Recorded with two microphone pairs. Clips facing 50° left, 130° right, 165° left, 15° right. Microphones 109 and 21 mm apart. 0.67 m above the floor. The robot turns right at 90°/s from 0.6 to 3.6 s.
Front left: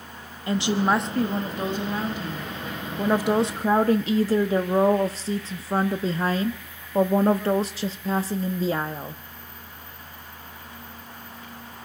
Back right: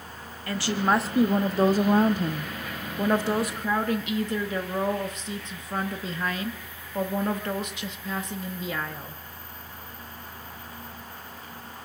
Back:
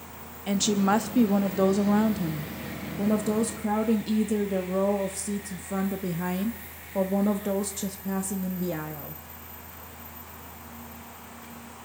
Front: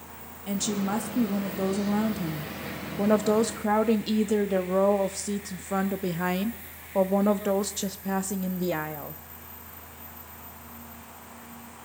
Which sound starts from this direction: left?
A woman speaking, at 0.5 s.